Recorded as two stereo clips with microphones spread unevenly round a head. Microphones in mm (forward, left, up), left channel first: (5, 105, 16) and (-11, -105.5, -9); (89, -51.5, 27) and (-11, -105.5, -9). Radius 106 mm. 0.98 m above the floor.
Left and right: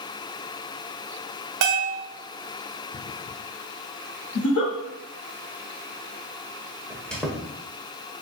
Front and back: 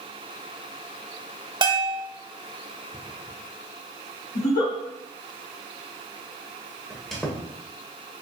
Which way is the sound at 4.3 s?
45° left.